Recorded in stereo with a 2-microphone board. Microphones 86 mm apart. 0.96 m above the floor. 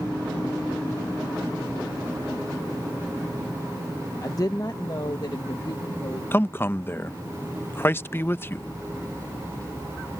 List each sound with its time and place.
4.2 s a woman speaking: 40° left (ahead or behind); by 6.2 s 55° left (ahead or behind)
6.3 s a man speaking: 25° left (ahead or behind)